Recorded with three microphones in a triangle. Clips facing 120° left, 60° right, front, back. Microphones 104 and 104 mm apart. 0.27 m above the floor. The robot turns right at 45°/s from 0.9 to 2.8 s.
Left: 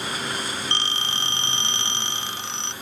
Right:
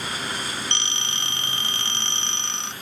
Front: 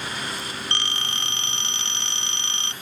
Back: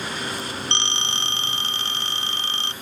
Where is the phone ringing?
135° left; by 2.7 s 145° right.